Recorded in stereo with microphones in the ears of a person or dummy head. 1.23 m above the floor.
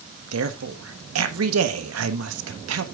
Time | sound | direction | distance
0.3 | a woman speaking | 85° right | 1.3 m